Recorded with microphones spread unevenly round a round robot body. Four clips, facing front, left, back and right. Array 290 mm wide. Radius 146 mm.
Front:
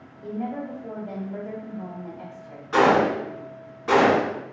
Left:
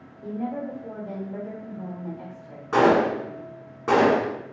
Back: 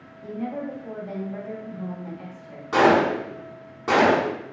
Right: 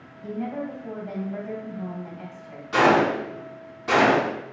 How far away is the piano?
No piano in this recording.